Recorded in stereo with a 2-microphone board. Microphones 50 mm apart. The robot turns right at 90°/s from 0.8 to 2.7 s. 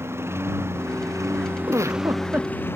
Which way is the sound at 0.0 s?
120° right.